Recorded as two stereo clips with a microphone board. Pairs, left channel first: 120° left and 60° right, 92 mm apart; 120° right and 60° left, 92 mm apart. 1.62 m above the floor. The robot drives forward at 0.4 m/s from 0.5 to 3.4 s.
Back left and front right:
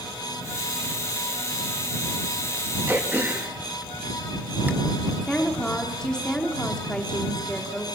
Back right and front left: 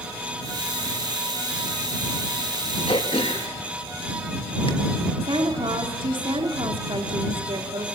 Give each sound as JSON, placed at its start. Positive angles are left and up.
{"t": 2.9, "sound": "throat clearing", "azimuth_deg": -125, "distance_m": 3.0}
{"t": 5.2, "sound": "a woman speaking", "azimuth_deg": 40, "distance_m": 5.0}